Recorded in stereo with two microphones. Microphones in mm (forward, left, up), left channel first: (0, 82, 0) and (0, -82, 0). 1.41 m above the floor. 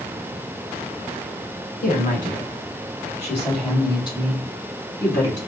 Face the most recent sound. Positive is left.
turn(degrees=20)  # may be behind; listen again after turning